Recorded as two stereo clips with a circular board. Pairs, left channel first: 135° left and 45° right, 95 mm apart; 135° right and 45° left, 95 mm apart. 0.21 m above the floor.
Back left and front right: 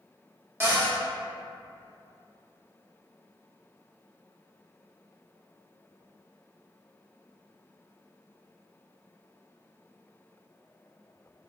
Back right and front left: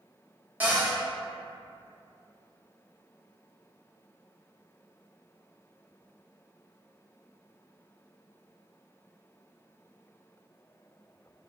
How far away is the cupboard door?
About 0.7 m.